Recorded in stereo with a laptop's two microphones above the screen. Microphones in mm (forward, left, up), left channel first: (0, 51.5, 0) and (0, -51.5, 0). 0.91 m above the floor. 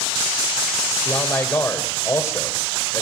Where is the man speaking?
15° left (ahead or behind), 4.5 m; by 3.0 s 30° left (ahead or behind), 4.5 m.